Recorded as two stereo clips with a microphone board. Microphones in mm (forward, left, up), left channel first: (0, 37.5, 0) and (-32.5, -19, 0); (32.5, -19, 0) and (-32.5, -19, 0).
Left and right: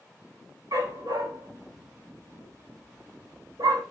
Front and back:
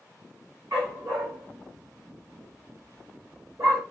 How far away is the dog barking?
About 9.5 m.